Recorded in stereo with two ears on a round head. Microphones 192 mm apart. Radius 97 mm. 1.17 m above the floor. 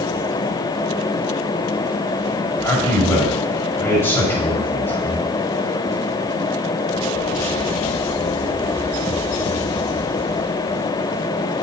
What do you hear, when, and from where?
2.6 s a man speaking: 10° left (ahead or behind), 6 m